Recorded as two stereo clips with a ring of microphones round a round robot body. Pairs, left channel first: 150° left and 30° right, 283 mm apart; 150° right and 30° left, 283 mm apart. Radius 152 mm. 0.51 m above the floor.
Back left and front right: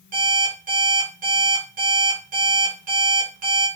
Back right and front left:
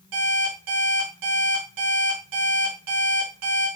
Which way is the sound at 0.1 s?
30° left.